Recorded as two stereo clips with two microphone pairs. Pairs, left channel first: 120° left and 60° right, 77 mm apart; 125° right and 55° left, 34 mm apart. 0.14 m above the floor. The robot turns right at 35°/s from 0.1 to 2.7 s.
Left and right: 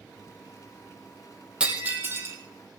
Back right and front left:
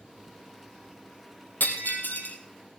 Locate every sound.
1.6 s breaking glass: 135° right, 2.5 m; by 2.4 s 110° right, 2.5 m